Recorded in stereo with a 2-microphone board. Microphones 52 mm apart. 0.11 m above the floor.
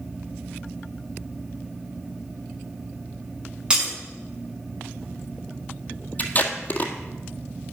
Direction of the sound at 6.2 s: 35° left (ahead or behind).